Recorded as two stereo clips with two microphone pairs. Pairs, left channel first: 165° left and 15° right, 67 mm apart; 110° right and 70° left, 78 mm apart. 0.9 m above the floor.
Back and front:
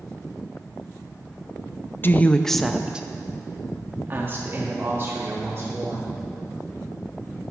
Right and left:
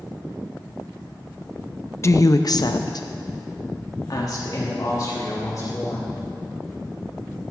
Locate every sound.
2.0 s a woman speaking: 155° right, 0.5 m; by 6.1 s 65° right, 2.5 m